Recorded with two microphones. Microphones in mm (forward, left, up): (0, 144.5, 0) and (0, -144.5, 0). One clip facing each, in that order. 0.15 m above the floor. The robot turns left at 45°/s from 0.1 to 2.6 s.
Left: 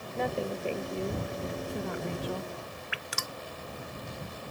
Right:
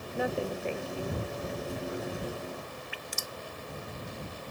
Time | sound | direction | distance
0.1 | a woman speaking | 170° right | ?
2.9 | dripping | 75° left (ahead or behind) | ?